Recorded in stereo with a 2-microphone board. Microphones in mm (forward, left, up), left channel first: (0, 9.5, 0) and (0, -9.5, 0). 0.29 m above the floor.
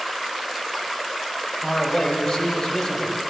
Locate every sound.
1.6 s a man speaking: 40° left (ahead or behind), 1.6 m